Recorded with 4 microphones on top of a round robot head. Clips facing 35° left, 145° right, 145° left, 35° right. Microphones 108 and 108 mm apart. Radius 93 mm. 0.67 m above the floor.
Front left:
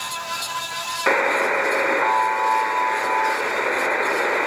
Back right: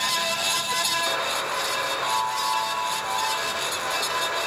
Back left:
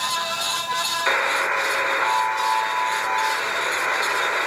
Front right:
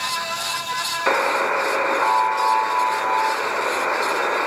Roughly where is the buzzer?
Ahead.